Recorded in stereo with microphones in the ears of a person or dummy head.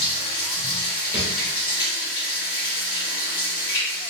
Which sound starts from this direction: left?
Running water, at 0.0 s.